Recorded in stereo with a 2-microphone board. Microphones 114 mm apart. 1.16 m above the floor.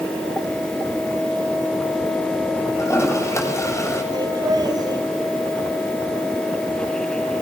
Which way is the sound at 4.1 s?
35° right (ahead or behind).